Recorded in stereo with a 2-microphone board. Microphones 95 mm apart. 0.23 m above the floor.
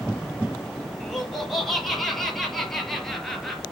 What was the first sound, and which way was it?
Laughter, centre (ahead or behind).